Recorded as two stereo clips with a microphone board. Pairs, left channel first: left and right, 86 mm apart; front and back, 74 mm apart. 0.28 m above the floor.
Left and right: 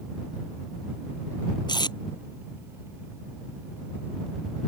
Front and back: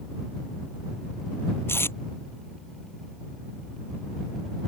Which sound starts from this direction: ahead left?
Tape being pulled, at 1.7 s.